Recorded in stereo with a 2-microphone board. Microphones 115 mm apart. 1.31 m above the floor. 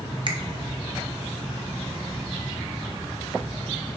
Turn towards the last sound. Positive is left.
turn(degrees=-45)  # may be behind; listen again after turning